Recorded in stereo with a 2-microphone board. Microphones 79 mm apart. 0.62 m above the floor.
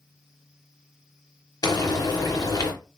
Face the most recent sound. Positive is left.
turn(degrees=50)  # may be behind; listen again after turning